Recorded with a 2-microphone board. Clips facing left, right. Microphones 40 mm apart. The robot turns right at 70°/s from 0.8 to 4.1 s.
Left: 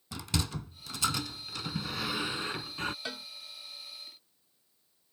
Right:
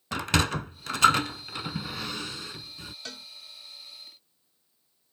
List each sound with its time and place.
0.1 s a sliding door: 75° right (ahead or behind); by 3.0 s 65° left (ahead or behind)
3.0 s a cowbell: 20° left (ahead or behind); by 3.3 s 5° left (ahead or behind)